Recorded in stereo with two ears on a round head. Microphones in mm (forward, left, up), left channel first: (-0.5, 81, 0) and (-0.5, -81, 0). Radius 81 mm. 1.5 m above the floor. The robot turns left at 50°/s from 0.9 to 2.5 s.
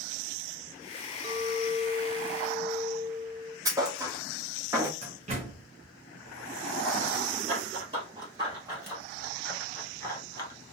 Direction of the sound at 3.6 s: 20° right (ahead or behind).